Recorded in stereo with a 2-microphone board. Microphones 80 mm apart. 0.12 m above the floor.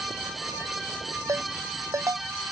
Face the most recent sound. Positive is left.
turn(degrees=-40)  # may be behind; listen again after turning